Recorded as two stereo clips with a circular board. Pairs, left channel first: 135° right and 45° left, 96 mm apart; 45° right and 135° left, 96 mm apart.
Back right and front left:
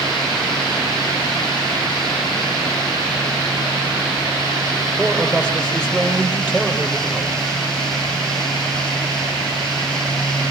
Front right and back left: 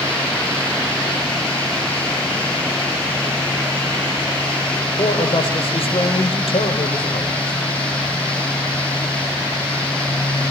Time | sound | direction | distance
5.0 | a man speaking | 55° right | 8 m